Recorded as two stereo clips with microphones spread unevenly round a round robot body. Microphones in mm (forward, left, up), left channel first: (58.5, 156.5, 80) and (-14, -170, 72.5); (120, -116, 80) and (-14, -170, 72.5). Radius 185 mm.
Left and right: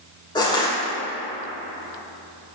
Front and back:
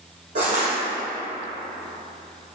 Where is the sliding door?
I don't hear a sliding door.